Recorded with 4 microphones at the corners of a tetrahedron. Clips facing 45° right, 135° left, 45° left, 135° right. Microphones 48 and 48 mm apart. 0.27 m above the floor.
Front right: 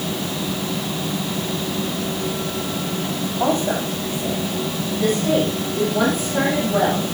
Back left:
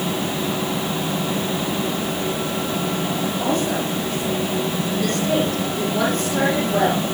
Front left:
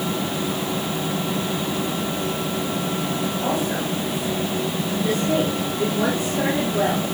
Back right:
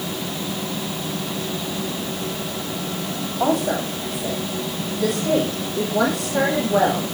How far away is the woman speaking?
About 9 m.